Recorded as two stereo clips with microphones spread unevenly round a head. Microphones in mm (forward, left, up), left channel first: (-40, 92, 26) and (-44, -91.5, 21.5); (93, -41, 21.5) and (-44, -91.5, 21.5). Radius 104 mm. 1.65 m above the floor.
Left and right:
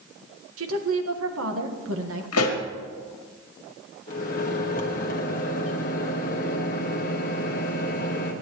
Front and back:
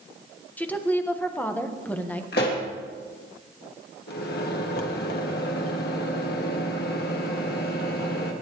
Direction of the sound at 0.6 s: 60° right.